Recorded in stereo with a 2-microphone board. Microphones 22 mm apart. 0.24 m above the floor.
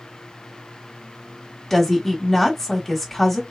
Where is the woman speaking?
10° left (ahead or behind), 1.0 m.